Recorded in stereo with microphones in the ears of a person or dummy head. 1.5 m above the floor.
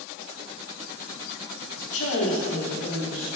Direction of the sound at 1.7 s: 80° left.